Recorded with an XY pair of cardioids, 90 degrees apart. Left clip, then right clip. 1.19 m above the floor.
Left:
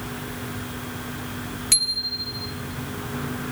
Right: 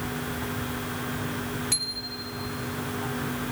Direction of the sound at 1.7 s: 70° left.